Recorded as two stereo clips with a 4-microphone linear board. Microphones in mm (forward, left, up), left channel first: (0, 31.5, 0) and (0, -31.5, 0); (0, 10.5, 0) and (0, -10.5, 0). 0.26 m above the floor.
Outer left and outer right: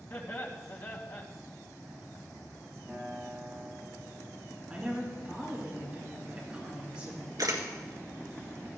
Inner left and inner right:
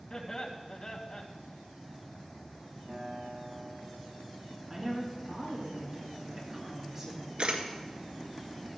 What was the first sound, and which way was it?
Laughter, 50° left (ahead or behind).